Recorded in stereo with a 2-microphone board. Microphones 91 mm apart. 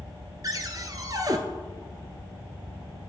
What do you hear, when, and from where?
0.4 s a cupboard door: 45° right (ahead or behind), 0.5 m